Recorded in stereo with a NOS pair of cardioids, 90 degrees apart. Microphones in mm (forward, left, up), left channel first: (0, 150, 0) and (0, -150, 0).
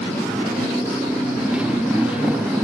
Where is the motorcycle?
5° right.